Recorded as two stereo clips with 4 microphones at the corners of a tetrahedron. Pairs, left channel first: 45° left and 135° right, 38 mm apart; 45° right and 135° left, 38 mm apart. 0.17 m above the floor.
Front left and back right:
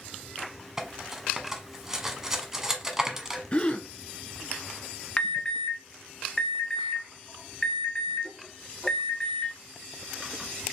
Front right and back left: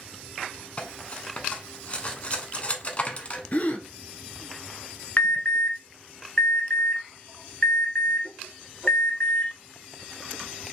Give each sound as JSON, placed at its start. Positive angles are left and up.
{"t": 0.8, "sound": "cutlery clinking", "azimuth_deg": -65, "distance_m": 0.7}
{"t": 3.5, "sound": "a gasp", "azimuth_deg": -10, "distance_m": 0.8}
{"t": 5.2, "sound": "an alarm", "azimuth_deg": -20, "distance_m": 1.0}